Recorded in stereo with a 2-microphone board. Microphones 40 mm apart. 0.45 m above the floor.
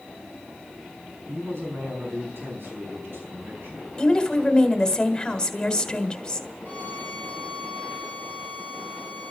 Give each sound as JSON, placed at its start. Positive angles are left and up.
{"t": 1.3, "sound": "a man speaking", "side_deg": -70, "distance_m": 4.0}
{"t": 4.0, "sound": "a woman speaking", "side_deg": 20, "distance_m": 1.6}
{"t": 6.7, "sound": "a violin", "side_deg": -40, "distance_m": 6.0}